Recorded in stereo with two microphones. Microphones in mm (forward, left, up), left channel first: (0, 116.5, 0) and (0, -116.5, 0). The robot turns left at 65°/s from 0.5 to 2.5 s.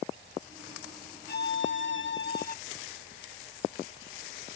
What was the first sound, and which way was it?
A violin, 125° left.